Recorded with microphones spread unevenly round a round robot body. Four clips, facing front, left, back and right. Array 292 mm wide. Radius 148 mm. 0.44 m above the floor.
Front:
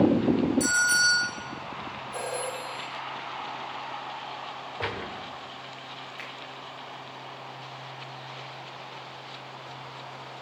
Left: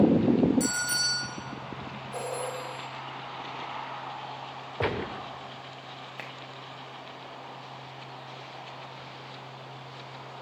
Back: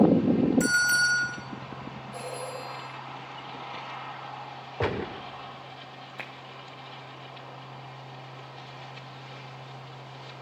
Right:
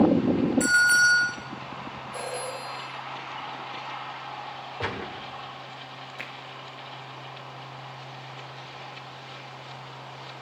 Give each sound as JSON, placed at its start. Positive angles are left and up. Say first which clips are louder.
{"t": 0.6, "sound": "a bell", "louder": "right 11 dB, even", "azimuth_deg": 170, "distance_m": 4.5}
{"t": 2.1, "sound": "a phone ringing", "louder": "left 1 dB, front 4 dB", "azimuth_deg": 90, "distance_m": 8.5}
{"t": 4.8, "sound": "a gunshot", "louder": "left 4 dB, back 5 dB", "azimuth_deg": 150, "distance_m": 1.0}
{"t": 6.2, "sound": "a finger snap", "louder": "right 1 dB, even", "azimuth_deg": 155, "distance_m": 2.0}